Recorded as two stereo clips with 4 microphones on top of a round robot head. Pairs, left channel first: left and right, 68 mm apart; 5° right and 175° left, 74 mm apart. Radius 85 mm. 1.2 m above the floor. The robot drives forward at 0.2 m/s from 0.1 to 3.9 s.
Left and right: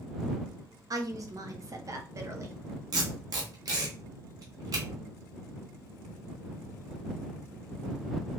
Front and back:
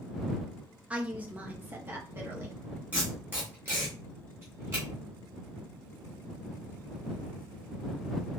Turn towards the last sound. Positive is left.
turn(degrees=-125)